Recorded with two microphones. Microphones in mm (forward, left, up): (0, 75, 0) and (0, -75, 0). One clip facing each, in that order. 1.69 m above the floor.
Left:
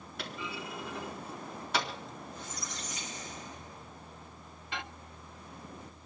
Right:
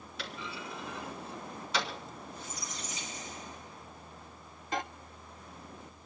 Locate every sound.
0.2 s a clunk: 55° left (ahead or behind), 4 m
2.3 s a squeak: 65° left (ahead or behind), 5.5 m
4.7 s a microwave: 40° right (ahead or behind), 0.6 m